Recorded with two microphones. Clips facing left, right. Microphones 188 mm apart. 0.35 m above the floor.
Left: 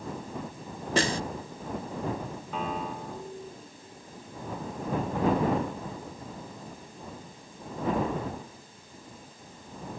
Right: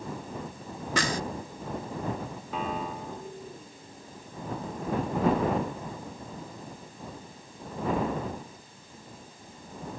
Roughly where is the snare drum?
Left.